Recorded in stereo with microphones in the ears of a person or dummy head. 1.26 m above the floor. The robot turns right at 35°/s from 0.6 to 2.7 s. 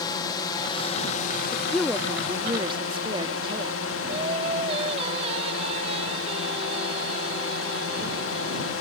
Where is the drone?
25° left; by 8.8 s 100° left.